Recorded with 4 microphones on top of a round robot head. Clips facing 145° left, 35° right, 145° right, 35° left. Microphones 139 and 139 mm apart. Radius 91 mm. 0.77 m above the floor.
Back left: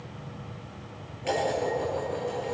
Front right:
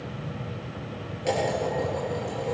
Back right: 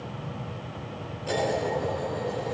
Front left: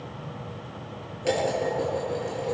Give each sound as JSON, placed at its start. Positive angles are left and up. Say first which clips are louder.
{"t": 1.2, "sound": "dishes clattering", "louder": "front right 1 dB, front left 2 dB", "azimuth_deg": 20, "distance_m": 9.0}